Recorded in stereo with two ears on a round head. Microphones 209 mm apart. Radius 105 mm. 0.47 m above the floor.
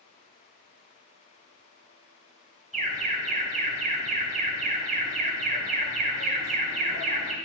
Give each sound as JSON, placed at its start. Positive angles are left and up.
{"t": 2.7, "sound": "an alarm", "side_deg": -30, "distance_m": 3.0}